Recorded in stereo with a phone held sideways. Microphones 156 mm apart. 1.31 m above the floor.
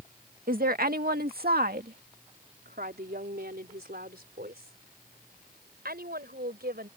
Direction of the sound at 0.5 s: 70° right (ahead or behind).